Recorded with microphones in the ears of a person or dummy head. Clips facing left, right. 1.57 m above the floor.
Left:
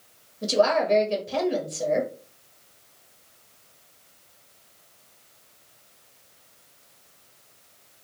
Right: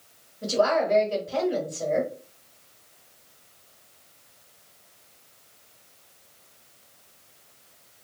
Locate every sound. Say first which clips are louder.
0.4 s a woman speaking: left 1 dB; 35° left (ahead or behind), 1.3 m